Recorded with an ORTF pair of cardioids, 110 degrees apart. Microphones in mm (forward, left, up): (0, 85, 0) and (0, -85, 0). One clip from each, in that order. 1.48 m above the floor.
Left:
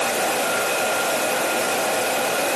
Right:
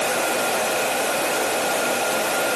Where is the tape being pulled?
No tape being pulled in this recording.